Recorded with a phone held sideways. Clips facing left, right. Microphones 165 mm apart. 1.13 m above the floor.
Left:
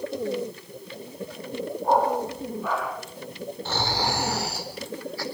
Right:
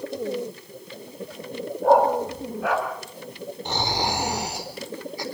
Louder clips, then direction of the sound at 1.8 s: Right 5 dB; 75° right (ahead or behind).